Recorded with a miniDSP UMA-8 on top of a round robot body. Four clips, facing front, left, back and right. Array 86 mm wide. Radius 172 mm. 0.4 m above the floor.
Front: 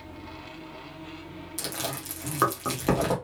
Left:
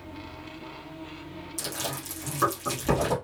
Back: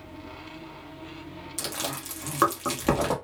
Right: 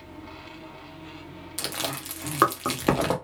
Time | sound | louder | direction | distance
1.6 | chewing | right 3 dB, even | 100° right | 1.5 m